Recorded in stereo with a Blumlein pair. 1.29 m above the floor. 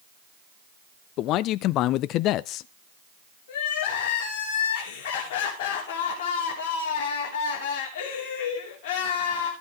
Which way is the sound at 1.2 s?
35° left.